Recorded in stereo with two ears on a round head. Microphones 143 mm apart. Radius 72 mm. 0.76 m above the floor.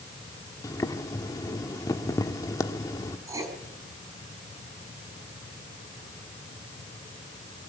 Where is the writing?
20° right (ahead or behind), 4.5 m.